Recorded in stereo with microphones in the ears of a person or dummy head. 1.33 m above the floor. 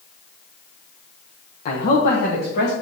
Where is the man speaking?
45° left (ahead or behind), 0.8 m; by 2.7 s 55° left (ahead or behind), 1.6 m.